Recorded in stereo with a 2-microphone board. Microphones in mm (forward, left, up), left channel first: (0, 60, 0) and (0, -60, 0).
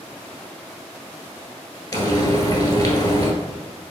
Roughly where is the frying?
Left.